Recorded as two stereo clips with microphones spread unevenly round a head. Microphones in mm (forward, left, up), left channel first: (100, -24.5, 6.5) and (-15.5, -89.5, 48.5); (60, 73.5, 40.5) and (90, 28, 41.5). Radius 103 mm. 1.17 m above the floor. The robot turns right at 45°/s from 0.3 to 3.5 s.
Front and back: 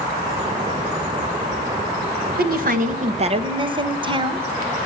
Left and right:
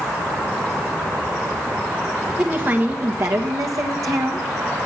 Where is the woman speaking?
145° right, 1.4 m; by 4.4 s 95° right, 1.4 m.